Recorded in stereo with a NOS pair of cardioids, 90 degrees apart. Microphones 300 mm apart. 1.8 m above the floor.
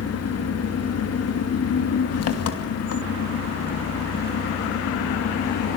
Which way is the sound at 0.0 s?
55° left.